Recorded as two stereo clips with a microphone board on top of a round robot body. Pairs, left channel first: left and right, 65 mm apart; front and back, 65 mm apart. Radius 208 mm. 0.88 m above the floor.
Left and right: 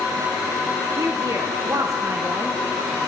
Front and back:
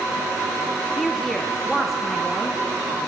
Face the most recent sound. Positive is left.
turn(degrees=-90)